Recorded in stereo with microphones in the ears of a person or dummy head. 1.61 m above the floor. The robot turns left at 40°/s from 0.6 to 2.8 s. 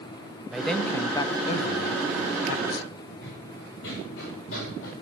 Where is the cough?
I don't hear a cough.